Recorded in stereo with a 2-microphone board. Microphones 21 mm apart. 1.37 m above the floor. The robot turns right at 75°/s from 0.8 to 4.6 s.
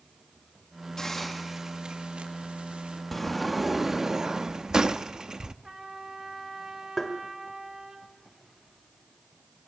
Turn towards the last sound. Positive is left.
turn(degrees=25)  # may be behind; listen again after turning